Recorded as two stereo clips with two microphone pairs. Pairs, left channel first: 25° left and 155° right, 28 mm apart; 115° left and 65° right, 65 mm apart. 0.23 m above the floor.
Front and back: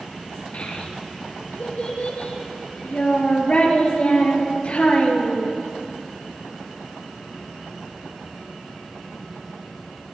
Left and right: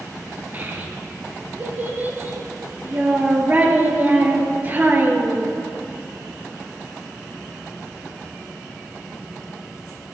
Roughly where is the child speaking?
Ahead.